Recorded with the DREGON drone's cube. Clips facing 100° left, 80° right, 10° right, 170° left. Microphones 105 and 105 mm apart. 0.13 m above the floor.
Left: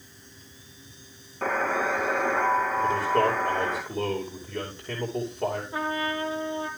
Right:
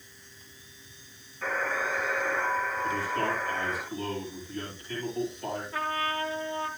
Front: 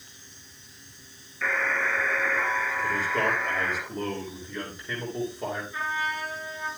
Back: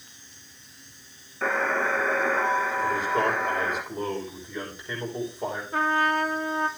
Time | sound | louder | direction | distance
1.4 | a buzzer | left 5 dB, back 3 dB | 120° left | 1.4 m
2.8 | a man speaking | left 6 dB, even | 85° left | 5.5 m
5.7 | a trumpet | left 2 dB, back 7 dB | 165° left | 1.0 m